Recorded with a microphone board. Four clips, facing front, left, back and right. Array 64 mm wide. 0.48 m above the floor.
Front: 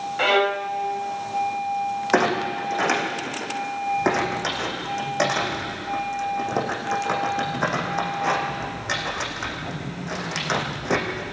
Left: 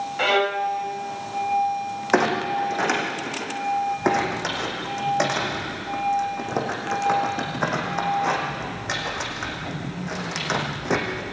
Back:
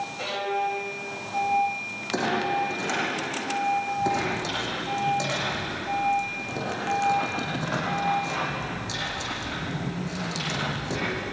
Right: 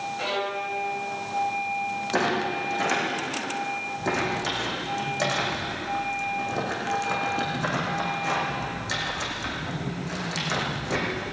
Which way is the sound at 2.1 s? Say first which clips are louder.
Left 5 dB, front 3 dB; 50° left.